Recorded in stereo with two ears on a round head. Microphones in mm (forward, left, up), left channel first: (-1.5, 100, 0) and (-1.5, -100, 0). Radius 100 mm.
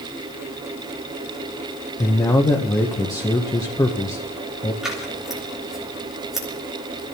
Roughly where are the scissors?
Centre.